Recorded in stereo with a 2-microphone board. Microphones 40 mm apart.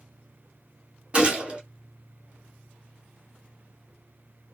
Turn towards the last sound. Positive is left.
turn(degrees=-25)  # may be behind; listen again after turning